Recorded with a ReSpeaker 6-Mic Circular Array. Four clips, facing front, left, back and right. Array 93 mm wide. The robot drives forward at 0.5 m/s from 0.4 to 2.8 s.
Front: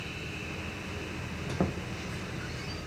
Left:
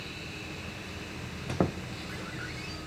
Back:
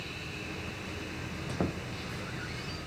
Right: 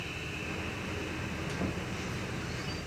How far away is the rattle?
I don't hear a rattle.